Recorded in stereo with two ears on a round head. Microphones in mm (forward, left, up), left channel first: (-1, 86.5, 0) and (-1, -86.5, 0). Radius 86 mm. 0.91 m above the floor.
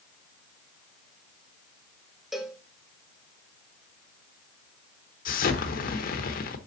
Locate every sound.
2.3 s a cowbell: centre (ahead or behind), 1.0 m
5.2 s an explosion: 50° left (ahead or behind), 1.0 m